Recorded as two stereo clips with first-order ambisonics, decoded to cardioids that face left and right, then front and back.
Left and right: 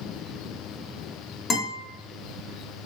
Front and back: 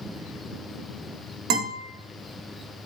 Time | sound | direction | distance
1.5 | a guitar | 155° left | 1.6 m